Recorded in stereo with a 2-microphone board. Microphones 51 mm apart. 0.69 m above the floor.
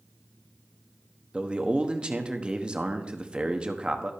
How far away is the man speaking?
About 1.0 m.